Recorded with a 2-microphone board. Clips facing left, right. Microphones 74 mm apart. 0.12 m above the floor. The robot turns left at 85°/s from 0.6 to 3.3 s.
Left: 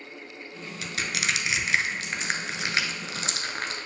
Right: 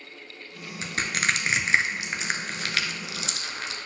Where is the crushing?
35° right (ahead or behind), 0.6 m; by 3.9 s 45° left (ahead or behind), 0.6 m.